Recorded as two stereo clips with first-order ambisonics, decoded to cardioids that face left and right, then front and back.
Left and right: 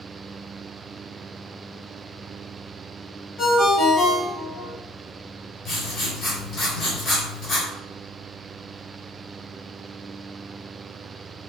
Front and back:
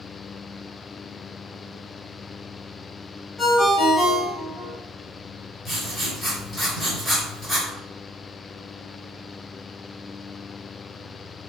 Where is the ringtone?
100° left, 0.9 m.